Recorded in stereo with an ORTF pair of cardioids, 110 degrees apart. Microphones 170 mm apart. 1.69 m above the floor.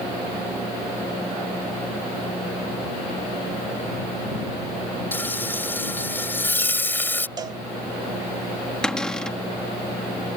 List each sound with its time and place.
5.1 s frying: 10° left
7.4 s a cowbell: 25° right
8.8 s a cupboard door: 5° left